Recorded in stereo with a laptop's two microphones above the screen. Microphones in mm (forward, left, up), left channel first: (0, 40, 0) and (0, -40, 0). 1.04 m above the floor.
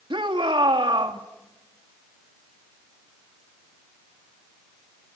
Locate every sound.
0.1 s a shout: 75° right (ahead or behind), 1.9 m